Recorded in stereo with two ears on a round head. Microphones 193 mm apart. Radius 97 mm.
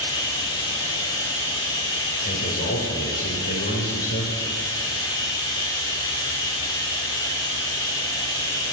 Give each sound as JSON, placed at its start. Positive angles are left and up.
{"t": 0.0, "sound": "running water", "side_deg": 20, "distance_m": 1.9}
{"t": 2.2, "sound": "a man speaking", "side_deg": 50, "distance_m": 2.5}